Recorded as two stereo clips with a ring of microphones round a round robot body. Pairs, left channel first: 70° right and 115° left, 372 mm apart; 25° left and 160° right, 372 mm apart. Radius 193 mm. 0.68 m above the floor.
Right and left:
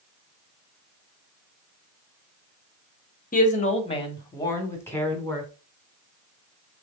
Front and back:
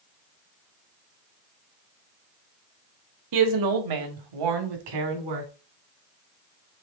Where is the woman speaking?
135° right, 1.6 m; by 5.5 s 155° right, 2.5 m.